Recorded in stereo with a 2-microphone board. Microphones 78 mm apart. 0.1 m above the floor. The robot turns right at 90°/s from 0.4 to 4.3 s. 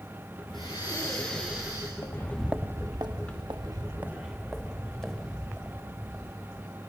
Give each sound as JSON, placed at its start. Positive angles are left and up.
{"t": 0.5, "sound": "breathing", "azimuth_deg": 95, "distance_m": 6.5}
{"t": 2.0, "sound": "footsteps", "side_deg": 50, "distance_m": 0.7}